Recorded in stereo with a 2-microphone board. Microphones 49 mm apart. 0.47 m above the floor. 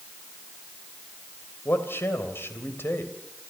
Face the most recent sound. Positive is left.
turn(degrees=50)  # may be behind; listen again after turning